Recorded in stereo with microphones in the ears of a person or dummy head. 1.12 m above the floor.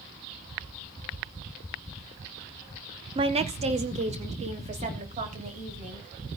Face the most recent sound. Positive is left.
turn(degrees=-35)  # may be behind; listen again after turning